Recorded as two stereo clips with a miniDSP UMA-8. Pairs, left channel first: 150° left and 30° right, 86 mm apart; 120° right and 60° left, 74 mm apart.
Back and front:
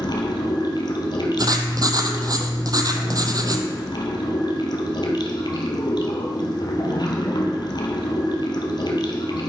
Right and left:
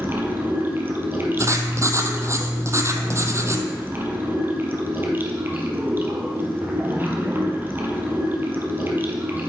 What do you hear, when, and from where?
0.0 s running water: 120° left, 1.5 m
1.4 s writing: 10° left, 0.8 m